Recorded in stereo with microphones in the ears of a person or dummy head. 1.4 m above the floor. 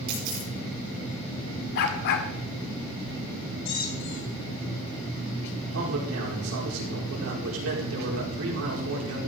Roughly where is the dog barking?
Left.